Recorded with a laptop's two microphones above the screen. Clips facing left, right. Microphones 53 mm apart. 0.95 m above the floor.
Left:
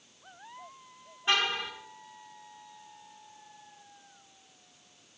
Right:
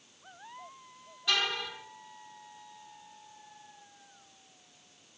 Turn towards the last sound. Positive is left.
turn(degrees=30)  # may be behind; listen again after turning